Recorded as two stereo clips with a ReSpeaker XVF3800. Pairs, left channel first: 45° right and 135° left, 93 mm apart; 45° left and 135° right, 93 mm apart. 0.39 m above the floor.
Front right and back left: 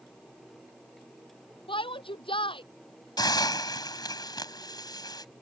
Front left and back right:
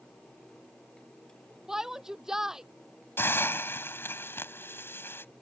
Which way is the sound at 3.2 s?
15° right.